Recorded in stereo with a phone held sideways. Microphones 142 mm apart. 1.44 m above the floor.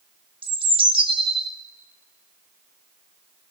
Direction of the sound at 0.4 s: 40° right (ahead or behind).